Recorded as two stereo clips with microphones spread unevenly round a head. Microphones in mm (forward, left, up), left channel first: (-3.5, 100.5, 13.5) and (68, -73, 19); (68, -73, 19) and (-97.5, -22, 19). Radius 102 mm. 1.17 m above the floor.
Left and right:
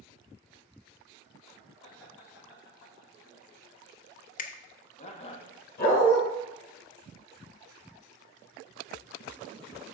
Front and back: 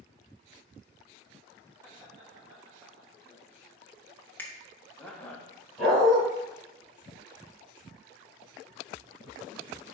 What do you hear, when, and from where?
1.8 s laughter: 95° left, 2.5 m; by 5.4 s 60° left, 0.9 m
4.4 s a finger snap: 65° left, 0.5 m
5.8 s a dog barking: 70° left, 3 m